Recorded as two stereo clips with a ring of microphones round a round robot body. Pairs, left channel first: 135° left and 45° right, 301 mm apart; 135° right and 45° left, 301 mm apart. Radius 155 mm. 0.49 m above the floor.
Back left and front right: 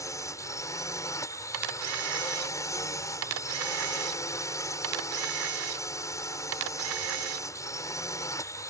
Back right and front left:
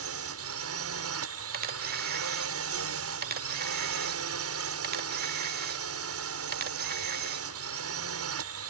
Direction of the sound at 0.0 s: 60° left.